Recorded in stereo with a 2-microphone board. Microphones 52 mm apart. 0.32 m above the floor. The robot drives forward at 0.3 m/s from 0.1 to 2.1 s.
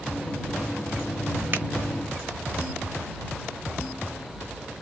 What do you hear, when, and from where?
1.5 s a finger snap: 35° right (ahead or behind), 1.0 m